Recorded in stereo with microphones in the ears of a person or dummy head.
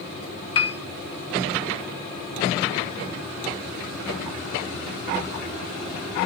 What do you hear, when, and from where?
0.6 s a piano: 30° left (ahead or behind), 0.9 m